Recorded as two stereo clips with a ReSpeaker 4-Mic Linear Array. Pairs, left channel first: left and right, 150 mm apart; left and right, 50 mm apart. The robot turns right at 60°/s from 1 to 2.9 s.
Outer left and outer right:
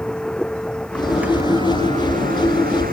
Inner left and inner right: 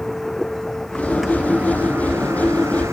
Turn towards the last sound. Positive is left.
turn(degrees=-75)